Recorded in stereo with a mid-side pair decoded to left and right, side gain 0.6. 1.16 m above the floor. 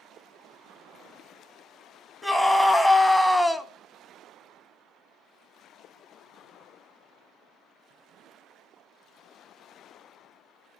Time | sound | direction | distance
2.2 | a scream | 15° left | 1.9 m